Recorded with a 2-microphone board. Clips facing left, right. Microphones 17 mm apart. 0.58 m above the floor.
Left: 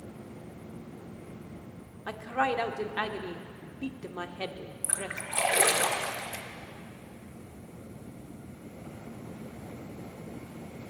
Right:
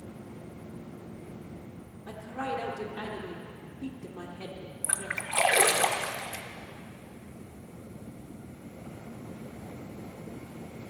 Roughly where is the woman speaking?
Left.